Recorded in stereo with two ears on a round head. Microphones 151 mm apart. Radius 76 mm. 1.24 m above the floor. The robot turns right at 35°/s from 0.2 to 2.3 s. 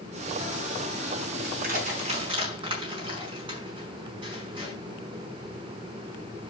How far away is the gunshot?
No gunshot in this recording.